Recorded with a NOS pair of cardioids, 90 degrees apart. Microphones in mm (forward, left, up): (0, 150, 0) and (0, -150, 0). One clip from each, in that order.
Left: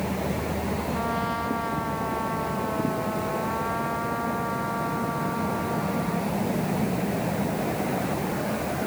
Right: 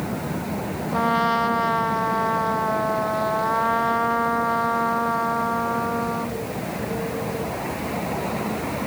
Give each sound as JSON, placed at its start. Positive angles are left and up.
{"t": 0.9, "sound": "a trumpet", "azimuth_deg": -60}